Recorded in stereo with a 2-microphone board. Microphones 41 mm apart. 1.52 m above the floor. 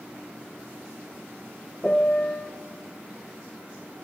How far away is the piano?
About 0.6 m.